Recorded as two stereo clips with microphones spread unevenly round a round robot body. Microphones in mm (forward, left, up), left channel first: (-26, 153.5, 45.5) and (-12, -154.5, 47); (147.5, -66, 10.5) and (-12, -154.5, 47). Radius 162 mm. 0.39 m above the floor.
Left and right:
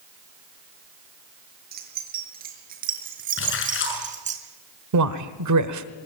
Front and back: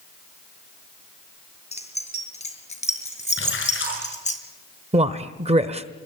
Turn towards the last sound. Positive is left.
turn(degrees=-90)